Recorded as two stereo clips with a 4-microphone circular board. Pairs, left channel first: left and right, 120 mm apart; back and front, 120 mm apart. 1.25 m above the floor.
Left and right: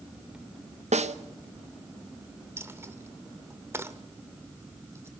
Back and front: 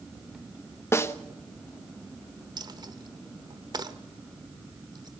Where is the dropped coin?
30° right, 1.1 m.